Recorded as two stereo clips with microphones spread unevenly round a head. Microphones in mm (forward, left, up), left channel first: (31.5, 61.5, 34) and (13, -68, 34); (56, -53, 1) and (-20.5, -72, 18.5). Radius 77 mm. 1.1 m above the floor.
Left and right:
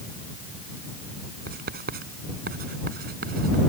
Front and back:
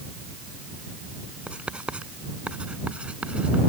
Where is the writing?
90° right.